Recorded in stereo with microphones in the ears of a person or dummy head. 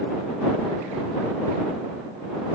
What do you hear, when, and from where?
Only background noise.